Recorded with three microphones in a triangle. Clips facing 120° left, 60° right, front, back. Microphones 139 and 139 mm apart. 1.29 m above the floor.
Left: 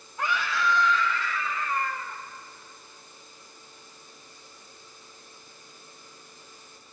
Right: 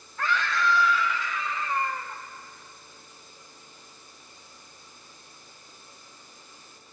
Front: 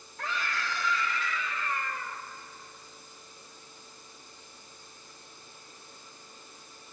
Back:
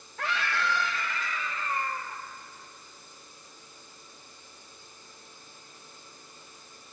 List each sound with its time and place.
0.2 s a scream: 165° right, 1.9 m; by 2.2 s 120° right, 3 m